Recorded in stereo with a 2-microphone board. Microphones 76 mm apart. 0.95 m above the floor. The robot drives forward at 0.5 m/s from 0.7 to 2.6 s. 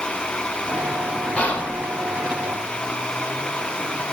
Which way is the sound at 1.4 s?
20° left (ahead or behind).